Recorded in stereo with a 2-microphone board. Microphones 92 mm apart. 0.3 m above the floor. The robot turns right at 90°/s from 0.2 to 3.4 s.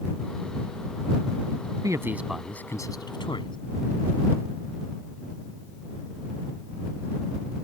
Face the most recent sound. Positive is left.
turn(degrees=60)  # may be behind; listen again after turning